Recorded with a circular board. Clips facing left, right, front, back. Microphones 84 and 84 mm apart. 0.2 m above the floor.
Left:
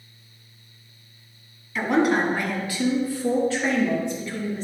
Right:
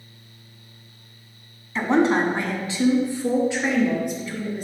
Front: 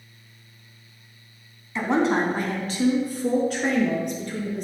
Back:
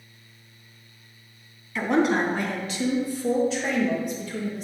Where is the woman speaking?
50° right, 1.6 m; by 4.7 s 15° right, 3.5 m.